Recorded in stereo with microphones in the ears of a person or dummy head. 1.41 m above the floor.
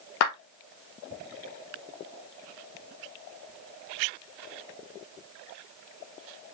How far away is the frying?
I don't hear frying.